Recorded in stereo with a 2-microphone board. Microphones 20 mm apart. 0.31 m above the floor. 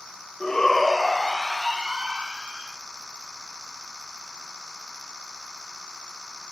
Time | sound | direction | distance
0.4 | a shout | 30° left (ahead or behind) | 0.9 m